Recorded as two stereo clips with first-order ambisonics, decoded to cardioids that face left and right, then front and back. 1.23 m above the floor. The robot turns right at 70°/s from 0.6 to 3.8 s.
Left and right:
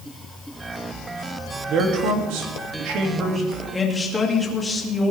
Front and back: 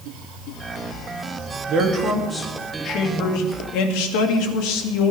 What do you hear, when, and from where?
1.7 s a man speaking: 140° right, 2.5 m; by 5.1 s 10° left, 2.5 m